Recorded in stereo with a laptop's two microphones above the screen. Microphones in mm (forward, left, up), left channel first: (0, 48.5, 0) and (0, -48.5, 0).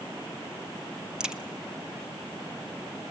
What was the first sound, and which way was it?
A crack, 10° right (ahead or behind).